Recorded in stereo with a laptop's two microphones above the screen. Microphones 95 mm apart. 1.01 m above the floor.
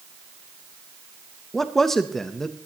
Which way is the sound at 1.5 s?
5° left (ahead or behind).